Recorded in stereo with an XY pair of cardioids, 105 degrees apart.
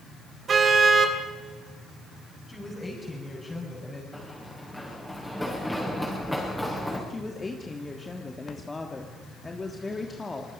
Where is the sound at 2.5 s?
15° left, 6 m.